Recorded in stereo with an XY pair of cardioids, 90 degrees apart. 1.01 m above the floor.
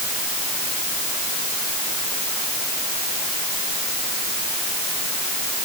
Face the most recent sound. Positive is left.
No sound to turn to.